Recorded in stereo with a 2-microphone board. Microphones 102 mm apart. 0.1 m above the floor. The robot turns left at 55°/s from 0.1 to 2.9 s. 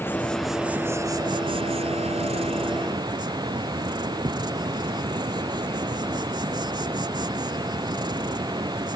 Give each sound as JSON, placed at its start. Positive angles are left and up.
{"t": 0.0, "sound": "an insect", "azimuth_deg": 20}